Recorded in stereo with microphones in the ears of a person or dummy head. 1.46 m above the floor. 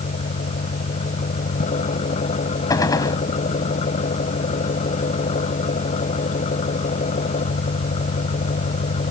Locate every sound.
0.0 s an engine running: 40° left (ahead or behind)
2.7 s a gunshot: 20° left (ahead or behind)